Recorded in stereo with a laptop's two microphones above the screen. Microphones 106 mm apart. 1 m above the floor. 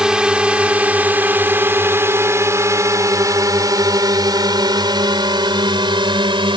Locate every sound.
0.0 s a drone: 10° right (ahead or behind); by 6.6 s 50° right (ahead or behind)